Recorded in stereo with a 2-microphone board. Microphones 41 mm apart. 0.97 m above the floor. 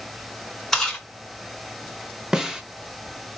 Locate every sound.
0.7 s chewing: 10° left (ahead or behind), 3 m
2.3 s a snare drum: 15° right (ahead or behind), 0.9 m